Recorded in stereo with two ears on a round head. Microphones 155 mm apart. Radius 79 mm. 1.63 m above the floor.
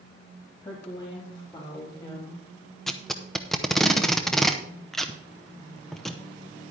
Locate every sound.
0.6 s a woman speaking: 30° left (ahead or behind), 3 m; by 2.5 s 25° left (ahead or behind), 4 m
2.9 s tape being pulled: centre (ahead or behind), 0.7 m